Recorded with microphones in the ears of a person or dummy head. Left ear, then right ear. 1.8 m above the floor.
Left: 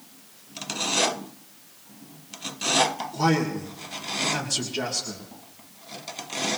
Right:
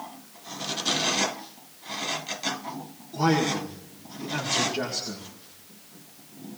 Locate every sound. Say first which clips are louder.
3.1 s a man speaking: right 3 dB; centre (ahead or behind), 2 m